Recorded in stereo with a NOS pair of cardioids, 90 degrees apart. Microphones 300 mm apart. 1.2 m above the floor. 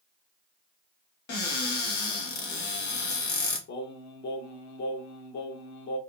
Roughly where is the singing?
Ahead left.